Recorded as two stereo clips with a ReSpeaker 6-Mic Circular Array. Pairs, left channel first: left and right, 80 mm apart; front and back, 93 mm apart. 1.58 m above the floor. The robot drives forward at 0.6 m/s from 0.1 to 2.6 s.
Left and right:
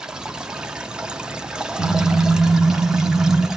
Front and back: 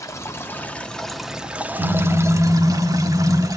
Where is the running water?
15° right, 1.2 m; by 3.6 s 165° right, 1.3 m.